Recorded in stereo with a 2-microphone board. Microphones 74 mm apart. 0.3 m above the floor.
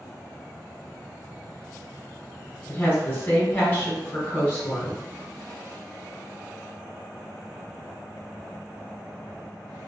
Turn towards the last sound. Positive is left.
turn(degrees=25)  # may be behind; listen again after turning